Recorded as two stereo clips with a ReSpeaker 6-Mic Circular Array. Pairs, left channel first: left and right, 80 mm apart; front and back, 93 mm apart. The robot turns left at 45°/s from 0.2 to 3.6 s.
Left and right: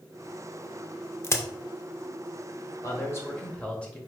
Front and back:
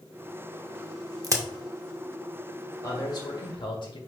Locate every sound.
1.2 s a crack: 140° left, 0.6 m; by 1.4 s 130° left, 0.6 m
2.8 s a man speaking: 50° left, 1.4 m; by 4.0 s 15° left, 1.4 m